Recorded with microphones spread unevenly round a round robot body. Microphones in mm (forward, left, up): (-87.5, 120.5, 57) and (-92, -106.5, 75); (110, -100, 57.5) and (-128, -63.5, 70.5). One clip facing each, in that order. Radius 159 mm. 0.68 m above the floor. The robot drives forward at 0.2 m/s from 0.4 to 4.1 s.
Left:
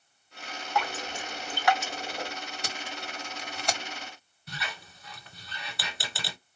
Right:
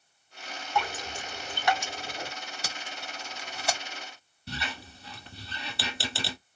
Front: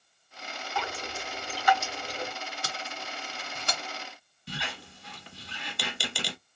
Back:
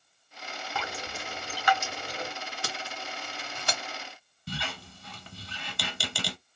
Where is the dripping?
175° left, 1.9 m; by 2.3 s straight behind, 2 m.